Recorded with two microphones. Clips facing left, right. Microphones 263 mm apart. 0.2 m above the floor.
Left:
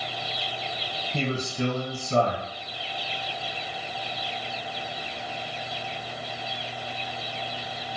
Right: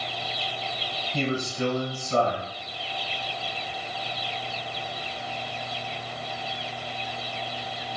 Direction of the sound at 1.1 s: 20° left (ahead or behind).